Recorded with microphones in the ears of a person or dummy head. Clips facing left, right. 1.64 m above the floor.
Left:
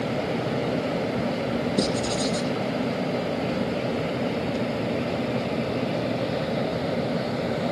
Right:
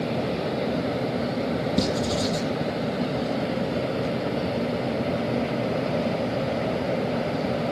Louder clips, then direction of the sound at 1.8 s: Right 1 dB; 20° right (ahead or behind).